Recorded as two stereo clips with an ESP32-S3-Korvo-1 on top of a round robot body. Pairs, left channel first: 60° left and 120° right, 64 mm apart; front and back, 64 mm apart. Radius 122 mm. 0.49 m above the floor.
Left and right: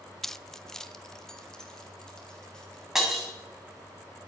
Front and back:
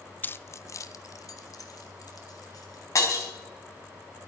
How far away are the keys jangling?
About 0.6 m.